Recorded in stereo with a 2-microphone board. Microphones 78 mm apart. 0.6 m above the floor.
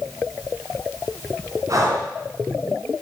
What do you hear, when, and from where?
1.7 s breathing: 45° right (ahead or behind), 2.5 m